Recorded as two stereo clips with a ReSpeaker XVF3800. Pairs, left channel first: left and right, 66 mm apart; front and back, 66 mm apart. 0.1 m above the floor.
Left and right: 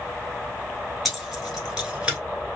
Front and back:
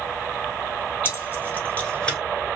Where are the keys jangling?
5° right, 1.3 m; by 2.2 s 55° right, 1.1 m.